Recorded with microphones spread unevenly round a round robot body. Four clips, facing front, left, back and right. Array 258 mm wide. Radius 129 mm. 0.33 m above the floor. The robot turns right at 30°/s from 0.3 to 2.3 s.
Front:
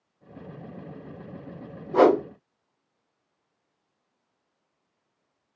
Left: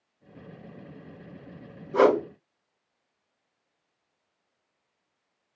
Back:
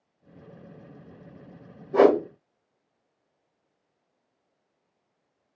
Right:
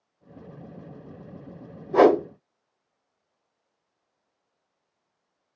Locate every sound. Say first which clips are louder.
1.9 s a whoosh: right 3 dB, even; 100° right, 1.1 m; by 2.2 s 90° right, 1.1 m